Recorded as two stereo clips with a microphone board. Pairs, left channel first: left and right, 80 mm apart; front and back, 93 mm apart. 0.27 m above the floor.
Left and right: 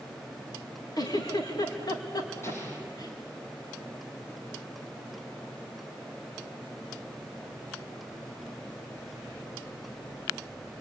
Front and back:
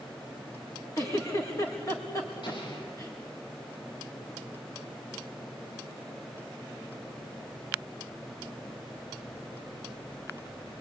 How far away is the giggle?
About 4 m.